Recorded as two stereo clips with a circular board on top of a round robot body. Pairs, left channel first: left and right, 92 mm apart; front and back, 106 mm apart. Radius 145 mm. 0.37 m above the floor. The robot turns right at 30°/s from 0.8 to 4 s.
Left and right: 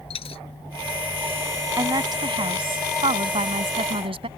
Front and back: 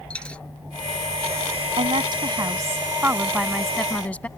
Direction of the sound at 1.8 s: 145° right.